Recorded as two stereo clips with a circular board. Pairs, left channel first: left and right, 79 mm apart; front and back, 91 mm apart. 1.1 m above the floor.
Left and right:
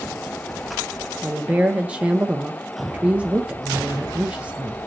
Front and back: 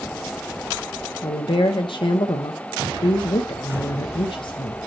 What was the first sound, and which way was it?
A woman speaking, 20° right.